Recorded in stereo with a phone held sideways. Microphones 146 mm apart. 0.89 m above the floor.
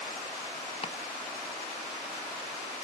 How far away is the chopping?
About 0.7 m.